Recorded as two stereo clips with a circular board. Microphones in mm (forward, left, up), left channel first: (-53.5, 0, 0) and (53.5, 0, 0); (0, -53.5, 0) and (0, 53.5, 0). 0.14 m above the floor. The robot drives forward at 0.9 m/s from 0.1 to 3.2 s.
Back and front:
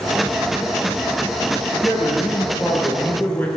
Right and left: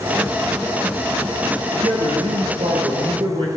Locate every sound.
1.7 s a man speaking: 80° left, 3 m; by 3.5 s 110° left, 3 m